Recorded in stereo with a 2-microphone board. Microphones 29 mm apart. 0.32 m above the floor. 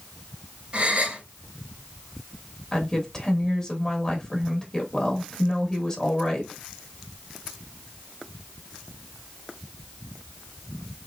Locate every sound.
0.7 s a gasp: 40° right (ahead or behind), 1.7 m
2.7 s a woman speaking: 25° left (ahead or behind), 1.4 m